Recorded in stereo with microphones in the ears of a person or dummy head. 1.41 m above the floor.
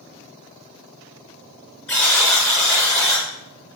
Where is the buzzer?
15° left (ahead or behind), 6 m.